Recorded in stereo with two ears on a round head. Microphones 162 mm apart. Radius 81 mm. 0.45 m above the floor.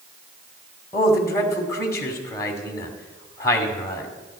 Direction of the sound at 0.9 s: 15° left (ahead or behind).